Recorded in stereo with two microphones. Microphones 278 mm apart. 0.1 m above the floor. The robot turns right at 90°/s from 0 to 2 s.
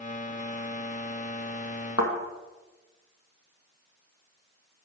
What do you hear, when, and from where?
2.0 s a thud: 65° left (ahead or behind), 2 m